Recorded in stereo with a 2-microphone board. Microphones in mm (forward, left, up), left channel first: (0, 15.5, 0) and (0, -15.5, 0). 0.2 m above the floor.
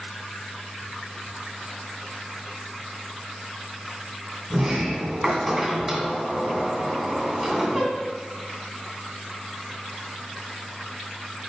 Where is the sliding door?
5° right (ahead or behind), 2.5 m.